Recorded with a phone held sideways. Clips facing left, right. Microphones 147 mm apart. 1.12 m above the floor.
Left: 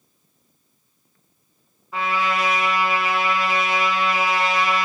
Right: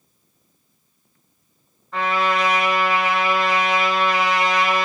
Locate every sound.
1.9 s a trumpet: 10° left (ahead or behind), 2.5 m